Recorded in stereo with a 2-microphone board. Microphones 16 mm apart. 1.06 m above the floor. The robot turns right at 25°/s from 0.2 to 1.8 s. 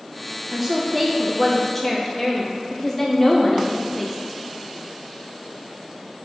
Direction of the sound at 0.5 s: 10° right.